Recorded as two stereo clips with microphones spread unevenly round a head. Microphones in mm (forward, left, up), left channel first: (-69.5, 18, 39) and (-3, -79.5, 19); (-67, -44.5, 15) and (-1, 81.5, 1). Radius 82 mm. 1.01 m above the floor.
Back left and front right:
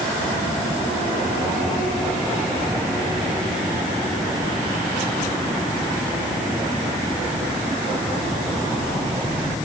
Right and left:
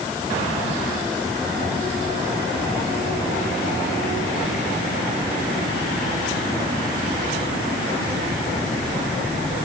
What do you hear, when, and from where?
Only background noise.